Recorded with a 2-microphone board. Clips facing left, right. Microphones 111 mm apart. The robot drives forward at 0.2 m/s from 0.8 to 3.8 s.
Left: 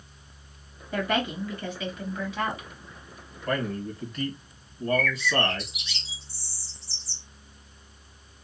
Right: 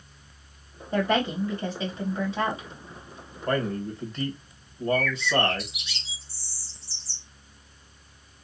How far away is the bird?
About 1.3 m.